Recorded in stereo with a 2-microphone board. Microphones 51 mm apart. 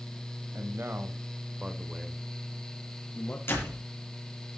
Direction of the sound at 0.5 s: 50° right (ahead or behind).